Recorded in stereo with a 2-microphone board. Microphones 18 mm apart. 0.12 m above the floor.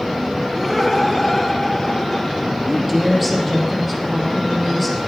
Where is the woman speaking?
Centre (ahead or behind), 4.5 m.